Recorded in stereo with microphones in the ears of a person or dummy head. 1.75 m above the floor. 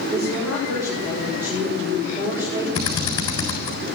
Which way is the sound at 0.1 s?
15° right (ahead or behind).